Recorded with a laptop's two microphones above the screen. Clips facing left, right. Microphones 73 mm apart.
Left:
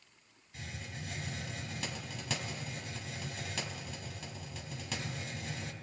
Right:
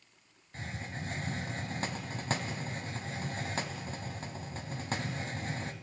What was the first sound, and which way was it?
A hiss, 40° right (ahead or behind).